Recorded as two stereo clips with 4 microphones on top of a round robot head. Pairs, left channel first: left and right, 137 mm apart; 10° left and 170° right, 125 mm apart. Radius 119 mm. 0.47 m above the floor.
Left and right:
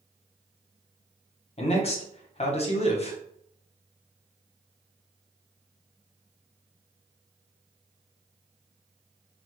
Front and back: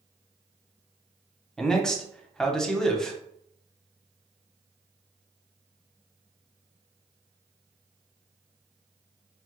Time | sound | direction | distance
1.6 | a man speaking | 90° left | 1.0 m